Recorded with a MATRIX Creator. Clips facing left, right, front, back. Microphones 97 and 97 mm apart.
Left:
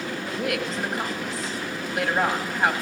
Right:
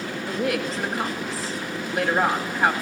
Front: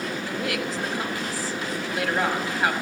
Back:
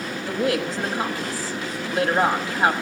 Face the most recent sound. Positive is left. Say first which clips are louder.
# right 3 dB, back 8 dB
turn(degrees=180)